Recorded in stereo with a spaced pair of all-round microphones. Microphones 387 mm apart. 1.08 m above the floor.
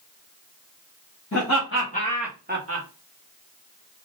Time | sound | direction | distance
1.3 | laughter | 50° left (ahead or behind) | 1.4 m